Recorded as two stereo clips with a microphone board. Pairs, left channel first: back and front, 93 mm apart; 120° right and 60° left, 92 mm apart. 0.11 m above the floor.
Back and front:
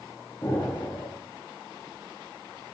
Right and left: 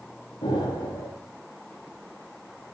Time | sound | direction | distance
0.4 | an explosion | 125° right | 4 m